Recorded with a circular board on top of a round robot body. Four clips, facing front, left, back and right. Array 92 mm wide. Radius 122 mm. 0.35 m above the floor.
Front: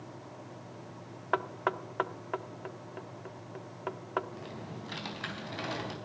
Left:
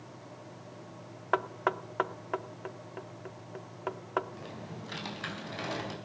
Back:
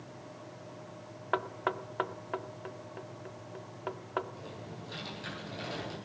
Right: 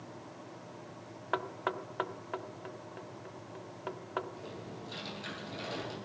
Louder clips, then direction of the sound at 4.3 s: Left 1 dB, front 2 dB; 40° left.